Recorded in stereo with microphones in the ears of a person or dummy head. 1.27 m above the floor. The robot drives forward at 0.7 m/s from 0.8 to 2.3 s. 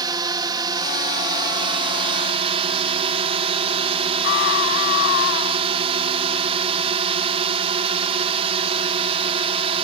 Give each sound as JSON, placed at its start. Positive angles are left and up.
{"t": 0.0, "sound": "a drone", "side_deg": -20}
{"t": 4.2, "sound": "a scream", "side_deg": 65}